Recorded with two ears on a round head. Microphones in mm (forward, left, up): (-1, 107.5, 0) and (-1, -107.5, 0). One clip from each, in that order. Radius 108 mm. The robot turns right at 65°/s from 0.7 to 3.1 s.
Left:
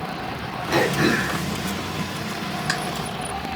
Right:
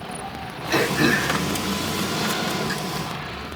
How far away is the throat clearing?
About 1.7 m.